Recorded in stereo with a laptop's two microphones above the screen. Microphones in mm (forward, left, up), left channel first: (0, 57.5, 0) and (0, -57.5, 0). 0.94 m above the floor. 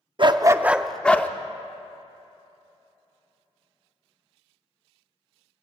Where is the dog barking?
50° right (ahead or behind), 0.5 m; by 1.3 s 15° left (ahead or behind), 0.8 m.